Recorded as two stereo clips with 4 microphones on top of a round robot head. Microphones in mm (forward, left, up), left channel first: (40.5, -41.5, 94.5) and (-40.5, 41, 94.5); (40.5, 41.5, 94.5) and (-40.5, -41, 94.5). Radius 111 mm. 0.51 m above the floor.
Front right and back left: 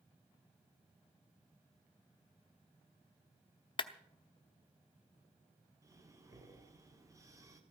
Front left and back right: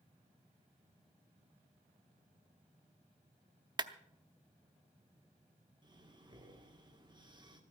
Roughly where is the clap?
Right.